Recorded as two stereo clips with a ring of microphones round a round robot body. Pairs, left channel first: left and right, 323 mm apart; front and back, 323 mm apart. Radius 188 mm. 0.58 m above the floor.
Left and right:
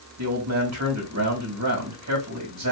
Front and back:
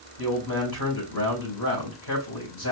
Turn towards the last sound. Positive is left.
turn(degrees=-50)